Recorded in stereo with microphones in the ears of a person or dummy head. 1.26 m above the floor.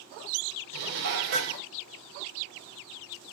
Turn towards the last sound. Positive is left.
turn(degrees=-65)  # may be behind; listen again after turning